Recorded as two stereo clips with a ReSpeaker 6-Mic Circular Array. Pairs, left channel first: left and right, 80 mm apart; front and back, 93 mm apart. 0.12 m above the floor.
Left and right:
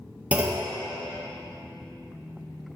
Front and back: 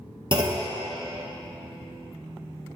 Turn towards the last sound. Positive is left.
turn(degrees=-160)